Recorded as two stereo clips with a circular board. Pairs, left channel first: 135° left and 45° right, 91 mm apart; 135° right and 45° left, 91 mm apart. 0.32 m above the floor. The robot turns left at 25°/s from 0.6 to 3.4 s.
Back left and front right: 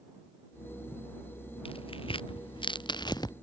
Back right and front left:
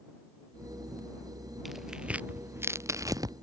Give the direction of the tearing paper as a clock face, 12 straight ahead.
8 o'clock.